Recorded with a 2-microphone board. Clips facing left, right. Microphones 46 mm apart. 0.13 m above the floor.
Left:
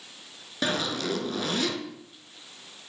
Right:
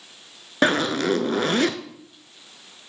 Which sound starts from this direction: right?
A zipper, at 0.6 s.